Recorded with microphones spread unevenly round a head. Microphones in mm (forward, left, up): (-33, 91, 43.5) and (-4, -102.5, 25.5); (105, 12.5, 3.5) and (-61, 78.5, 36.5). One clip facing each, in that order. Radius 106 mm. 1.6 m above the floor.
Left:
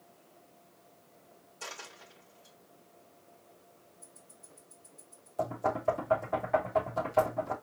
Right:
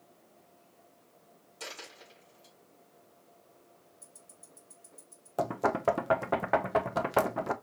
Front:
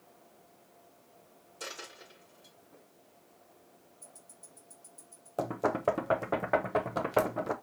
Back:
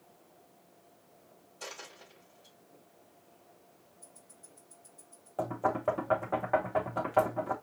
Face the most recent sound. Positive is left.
turn(degrees=-80)